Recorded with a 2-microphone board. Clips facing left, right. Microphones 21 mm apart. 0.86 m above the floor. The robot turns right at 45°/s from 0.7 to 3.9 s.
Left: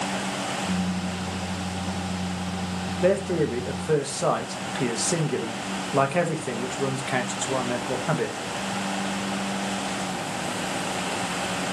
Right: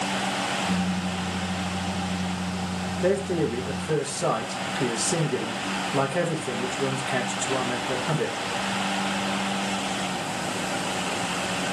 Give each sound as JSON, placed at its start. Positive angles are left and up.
{"t": 3.0, "sound": "a man speaking", "side_deg": 25, "distance_m": 0.8}